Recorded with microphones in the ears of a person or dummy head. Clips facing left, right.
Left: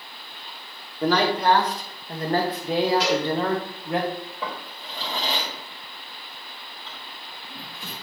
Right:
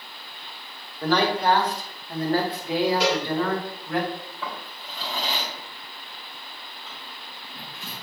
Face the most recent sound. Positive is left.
turn(degrees=40)  # may be behind; listen again after turning